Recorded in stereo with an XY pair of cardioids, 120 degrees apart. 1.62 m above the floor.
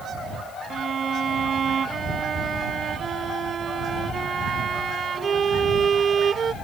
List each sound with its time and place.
0.7 s a violin: 35° right